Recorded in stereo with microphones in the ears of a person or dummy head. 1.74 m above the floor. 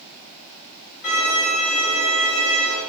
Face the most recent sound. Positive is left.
turn(degrees=60)  # may be behind; listen again after turning